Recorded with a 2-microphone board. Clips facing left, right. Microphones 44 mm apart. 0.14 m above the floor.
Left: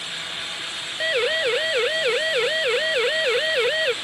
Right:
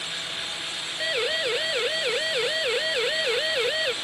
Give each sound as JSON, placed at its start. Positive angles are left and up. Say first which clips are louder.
{"t": 1.0, "sound": "a siren", "louder": "left 5 dB", "side_deg": 20}